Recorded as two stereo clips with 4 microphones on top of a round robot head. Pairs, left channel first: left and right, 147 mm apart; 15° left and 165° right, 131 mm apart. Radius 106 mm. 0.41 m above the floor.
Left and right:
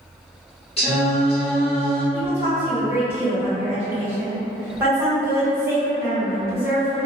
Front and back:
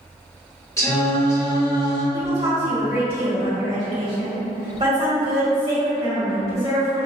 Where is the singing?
70° left, 1.6 m.